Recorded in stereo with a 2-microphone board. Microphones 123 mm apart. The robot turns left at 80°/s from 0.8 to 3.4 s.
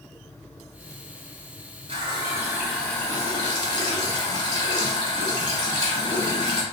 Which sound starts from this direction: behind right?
A running tap, at 1.9 s.